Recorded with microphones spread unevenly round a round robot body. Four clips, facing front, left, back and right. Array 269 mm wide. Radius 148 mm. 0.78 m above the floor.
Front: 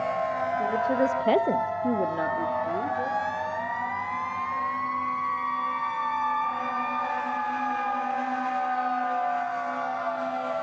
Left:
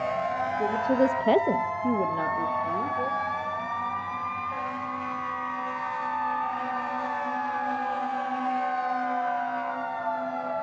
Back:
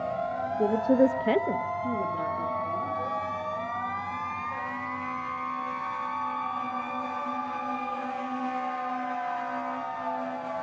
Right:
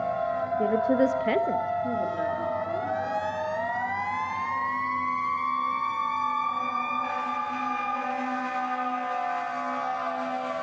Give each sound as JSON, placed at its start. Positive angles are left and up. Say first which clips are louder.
{"t": 0.6, "sound": "a woman speaking", "louder": "right 1 dB, back 4 dB", "azimuth_deg": -155, "distance_m": 1.1}